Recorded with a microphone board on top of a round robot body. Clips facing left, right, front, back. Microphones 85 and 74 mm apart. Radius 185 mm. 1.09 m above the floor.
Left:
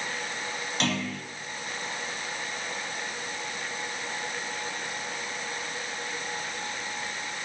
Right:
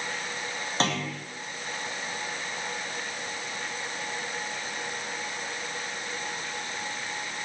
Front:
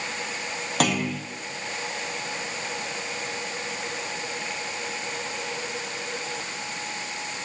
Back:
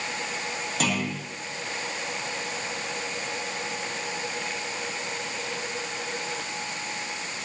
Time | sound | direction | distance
0.8 | a clunk | 35° right | 3.5 m